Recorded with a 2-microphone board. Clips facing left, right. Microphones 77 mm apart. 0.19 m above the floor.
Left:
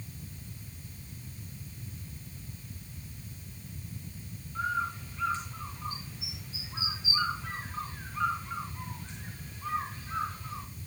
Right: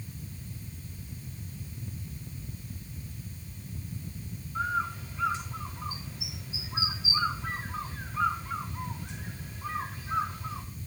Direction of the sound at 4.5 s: 15° right (ahead or behind).